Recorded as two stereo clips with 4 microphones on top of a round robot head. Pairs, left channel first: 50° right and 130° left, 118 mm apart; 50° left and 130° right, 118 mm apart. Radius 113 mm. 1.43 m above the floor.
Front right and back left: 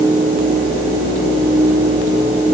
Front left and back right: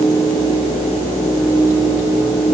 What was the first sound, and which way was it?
Only background noise.